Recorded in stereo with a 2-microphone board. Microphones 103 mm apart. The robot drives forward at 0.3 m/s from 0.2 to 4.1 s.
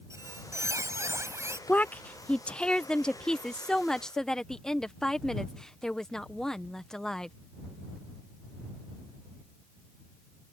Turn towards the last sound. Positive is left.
turn(degrees=5)  # may be behind; listen again after turning